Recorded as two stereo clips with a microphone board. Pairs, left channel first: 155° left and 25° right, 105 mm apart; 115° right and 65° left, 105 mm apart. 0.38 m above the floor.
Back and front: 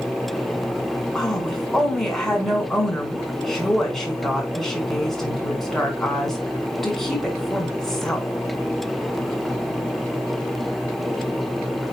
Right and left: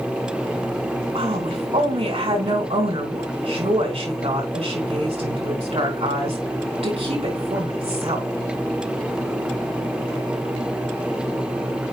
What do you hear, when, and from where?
1.1 s a woman speaking: 70° left, 4.5 m